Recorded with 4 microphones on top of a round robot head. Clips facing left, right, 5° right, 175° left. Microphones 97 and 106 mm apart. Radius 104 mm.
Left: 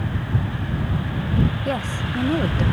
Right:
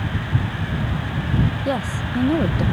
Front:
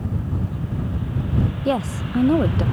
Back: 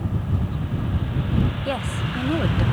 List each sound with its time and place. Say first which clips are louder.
1.6 s a woman speaking: right 2 dB, front 4 dB; 20° right